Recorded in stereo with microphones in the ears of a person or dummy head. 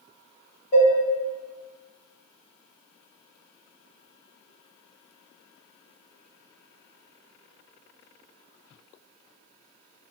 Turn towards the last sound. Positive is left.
turn(degrees=65)  # may be behind; listen again after turning